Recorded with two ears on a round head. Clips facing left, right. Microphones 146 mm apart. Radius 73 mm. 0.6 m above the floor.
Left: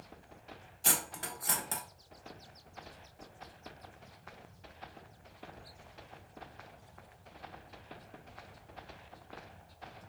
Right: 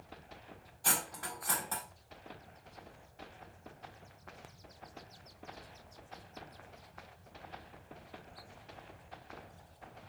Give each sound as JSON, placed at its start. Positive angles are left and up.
{"t": 0.8, "sound": "cutlery clinking", "side_deg": 25, "distance_m": 0.6}